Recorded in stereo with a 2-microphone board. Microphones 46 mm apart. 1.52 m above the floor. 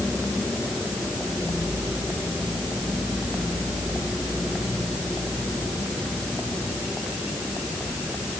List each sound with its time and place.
Only background noise.